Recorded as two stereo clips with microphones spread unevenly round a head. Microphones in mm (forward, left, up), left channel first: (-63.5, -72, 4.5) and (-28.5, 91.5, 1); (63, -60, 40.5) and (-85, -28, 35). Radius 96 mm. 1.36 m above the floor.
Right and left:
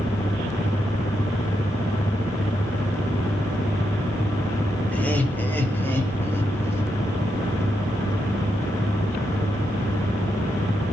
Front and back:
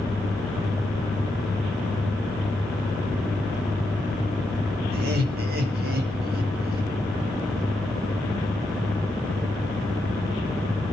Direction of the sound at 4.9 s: 175° left.